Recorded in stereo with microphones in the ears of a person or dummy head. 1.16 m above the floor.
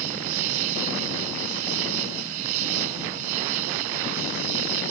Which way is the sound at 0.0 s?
75° right (ahead or behind).